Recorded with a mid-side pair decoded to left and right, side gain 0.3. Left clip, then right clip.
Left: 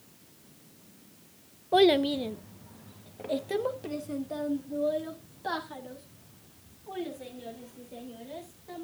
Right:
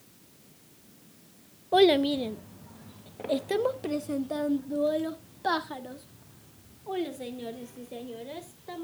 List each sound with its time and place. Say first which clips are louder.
1.7 s a child speaking: right 1 dB; 5° right, 0.9 m; by 8.8 s 75° right, 4 m